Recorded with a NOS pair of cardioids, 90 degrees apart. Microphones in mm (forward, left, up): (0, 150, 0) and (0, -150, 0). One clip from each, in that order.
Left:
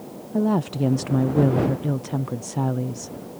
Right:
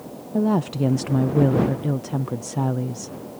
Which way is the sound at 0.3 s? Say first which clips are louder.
Right 1 dB; straight ahead.